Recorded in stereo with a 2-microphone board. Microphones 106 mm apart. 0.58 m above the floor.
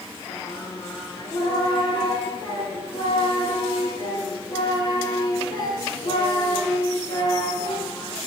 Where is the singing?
40° left (ahead or behind), 2 m.